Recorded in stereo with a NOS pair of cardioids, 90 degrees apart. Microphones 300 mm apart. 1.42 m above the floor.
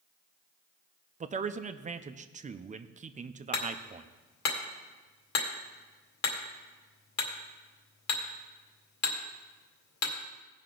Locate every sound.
1.2 s a man speaking: 25° right, 0.5 m
3.5 s hammering: 65° left, 2 m